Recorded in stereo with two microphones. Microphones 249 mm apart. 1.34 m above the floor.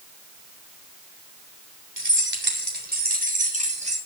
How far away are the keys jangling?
About 3.5 m.